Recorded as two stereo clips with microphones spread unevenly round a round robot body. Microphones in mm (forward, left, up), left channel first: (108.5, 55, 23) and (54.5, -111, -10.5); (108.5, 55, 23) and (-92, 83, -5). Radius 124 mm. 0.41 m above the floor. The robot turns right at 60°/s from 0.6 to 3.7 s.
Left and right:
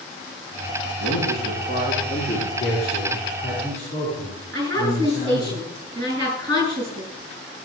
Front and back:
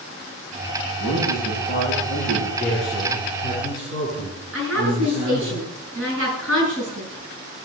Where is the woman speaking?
155° right, 8 m.